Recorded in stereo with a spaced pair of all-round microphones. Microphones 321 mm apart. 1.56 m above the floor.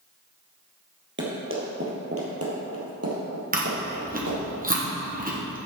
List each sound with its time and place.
1.2 s running footsteps: 35° right (ahead or behind), 2 m; by 4.4 s 55° right (ahead or behind), 2.5 m
3.5 s chewing: 25° right (ahead or behind), 1.2 m